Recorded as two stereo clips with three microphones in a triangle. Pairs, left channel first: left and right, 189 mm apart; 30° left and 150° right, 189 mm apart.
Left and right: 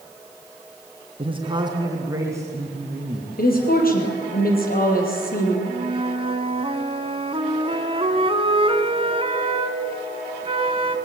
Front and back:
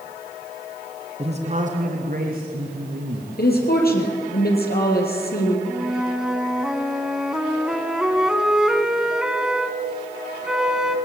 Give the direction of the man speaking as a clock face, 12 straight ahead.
4 o'clock.